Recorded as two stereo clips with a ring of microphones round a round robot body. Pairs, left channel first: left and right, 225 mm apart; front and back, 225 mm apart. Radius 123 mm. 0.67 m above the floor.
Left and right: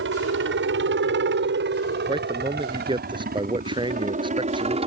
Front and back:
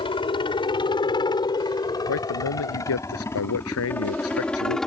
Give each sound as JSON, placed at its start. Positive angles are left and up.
{"t": 0.0, "sound": "a helicopter", "azimuth_deg": -65}
{"t": 2.1, "sound": "a man speaking", "azimuth_deg": -20}